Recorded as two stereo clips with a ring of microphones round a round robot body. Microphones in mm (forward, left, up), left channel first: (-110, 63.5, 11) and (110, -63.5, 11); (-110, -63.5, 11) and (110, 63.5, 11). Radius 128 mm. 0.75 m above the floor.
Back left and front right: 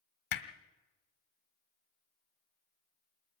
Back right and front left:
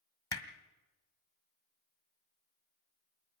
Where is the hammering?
130° left, 1.6 m.